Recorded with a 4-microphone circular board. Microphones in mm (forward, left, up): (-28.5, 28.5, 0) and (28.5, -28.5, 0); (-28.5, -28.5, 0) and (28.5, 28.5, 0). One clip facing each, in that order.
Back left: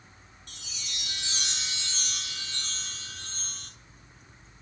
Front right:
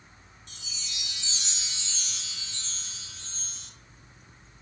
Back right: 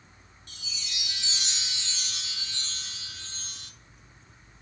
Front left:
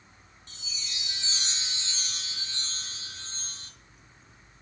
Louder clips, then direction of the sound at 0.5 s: Back left 1 dB, back right 1 dB; 100° left.